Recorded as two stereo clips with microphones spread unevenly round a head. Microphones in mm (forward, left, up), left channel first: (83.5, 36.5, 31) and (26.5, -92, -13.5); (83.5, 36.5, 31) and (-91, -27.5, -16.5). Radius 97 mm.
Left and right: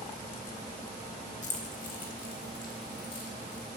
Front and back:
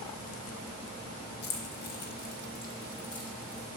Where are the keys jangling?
50° left, 1.2 m; by 3.7 s 70° left, 3 m.